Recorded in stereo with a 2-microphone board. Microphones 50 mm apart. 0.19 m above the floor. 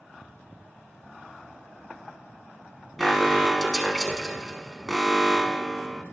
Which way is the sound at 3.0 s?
5° left (ahead or behind).